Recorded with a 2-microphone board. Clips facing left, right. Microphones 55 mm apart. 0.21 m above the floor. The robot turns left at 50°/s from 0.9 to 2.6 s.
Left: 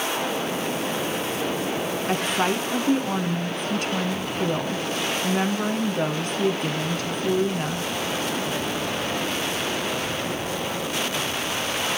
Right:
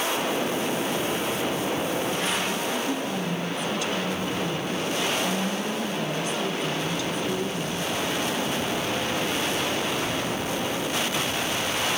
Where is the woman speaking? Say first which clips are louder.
Left 3 dB; 55° left (ahead or behind), 1.6 m; by 7.9 s 45° left (ahead or behind), 1.6 m.